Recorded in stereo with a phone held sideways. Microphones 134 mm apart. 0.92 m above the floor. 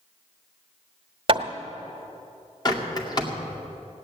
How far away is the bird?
About 2 m.